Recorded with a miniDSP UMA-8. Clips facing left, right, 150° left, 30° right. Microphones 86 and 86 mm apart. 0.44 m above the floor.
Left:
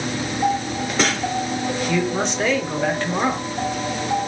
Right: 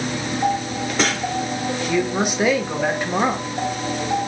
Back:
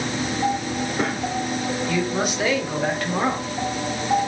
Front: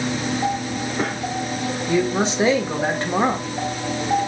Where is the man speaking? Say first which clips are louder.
Right 2 dB, front 6 dB; 25° right, 1.1 m.